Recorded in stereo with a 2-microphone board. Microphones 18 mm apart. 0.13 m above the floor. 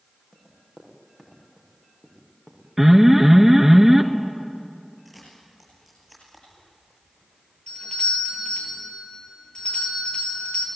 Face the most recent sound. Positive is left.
turn(degrees=55)  # may be behind; listen again after turning